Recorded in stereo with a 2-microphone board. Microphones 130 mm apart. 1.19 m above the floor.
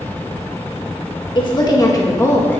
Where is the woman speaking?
40° left (ahead or behind), 1.8 m; by 2.6 s 15° left (ahead or behind), 1.9 m.